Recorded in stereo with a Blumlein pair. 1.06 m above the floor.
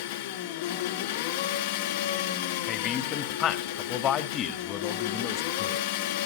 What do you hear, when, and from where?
0.0 s an engine running: 50° left, 1.1 m
2.7 s a man speaking: 30° left, 1.7 m